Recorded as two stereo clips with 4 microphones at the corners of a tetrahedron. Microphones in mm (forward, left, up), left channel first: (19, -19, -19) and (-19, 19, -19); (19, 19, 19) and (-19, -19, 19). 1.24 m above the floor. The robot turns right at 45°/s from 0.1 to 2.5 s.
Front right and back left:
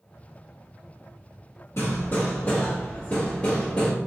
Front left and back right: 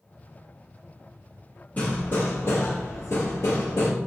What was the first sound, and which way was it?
Hammering, 10° right.